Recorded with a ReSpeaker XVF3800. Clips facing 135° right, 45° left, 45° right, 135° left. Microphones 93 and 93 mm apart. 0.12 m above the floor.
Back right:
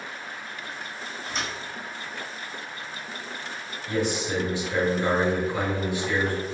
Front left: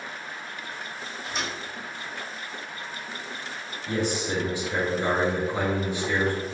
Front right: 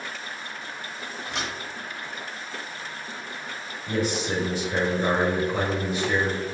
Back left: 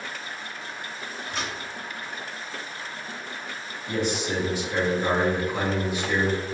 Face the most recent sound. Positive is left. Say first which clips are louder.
# back right 1 dB, front right 1 dB
turn(degrees=-20)